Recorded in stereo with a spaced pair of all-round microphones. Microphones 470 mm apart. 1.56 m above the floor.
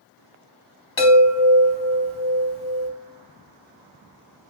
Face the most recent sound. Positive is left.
turn(degrees=65)  # may be behind; listen again after turning